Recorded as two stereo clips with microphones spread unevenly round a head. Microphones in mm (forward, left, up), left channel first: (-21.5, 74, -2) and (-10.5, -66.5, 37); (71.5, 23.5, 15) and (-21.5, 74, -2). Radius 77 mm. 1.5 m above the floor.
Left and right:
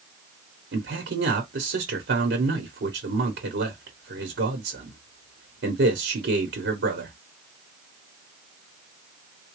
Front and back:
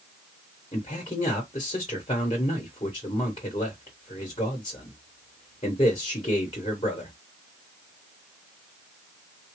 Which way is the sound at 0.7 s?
85° right.